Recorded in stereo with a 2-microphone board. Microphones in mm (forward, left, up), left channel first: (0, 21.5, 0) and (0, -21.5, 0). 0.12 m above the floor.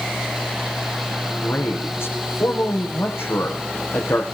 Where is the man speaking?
70° left (ahead or behind), 5.5 m.